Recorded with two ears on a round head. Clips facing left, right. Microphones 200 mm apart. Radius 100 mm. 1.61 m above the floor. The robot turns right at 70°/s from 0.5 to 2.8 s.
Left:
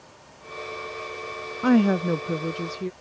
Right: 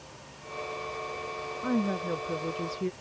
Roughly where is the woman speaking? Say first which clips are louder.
Left 10 dB; left.